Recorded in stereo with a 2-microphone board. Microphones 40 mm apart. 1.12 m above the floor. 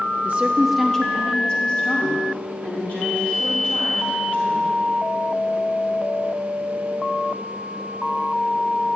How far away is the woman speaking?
About 0.8 m.